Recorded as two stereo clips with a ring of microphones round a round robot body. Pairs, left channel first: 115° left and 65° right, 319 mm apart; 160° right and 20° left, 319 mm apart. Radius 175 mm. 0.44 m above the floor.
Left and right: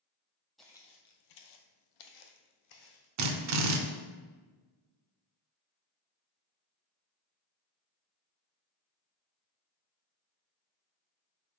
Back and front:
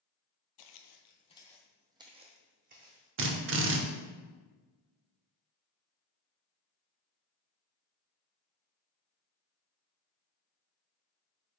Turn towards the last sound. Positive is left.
turn(degrees=-30)